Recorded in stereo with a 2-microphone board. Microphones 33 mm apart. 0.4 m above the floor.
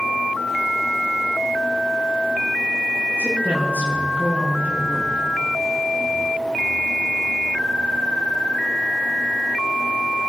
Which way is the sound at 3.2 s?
65° right (ahead or behind).